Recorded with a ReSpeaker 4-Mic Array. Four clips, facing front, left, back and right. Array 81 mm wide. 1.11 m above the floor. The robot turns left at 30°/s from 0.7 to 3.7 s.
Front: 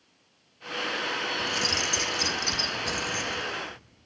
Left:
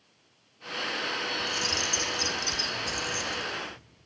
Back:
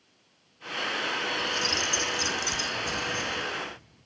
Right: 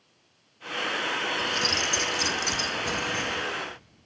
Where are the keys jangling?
30° right, 0.7 m; by 3.4 s 90° right, 0.7 m.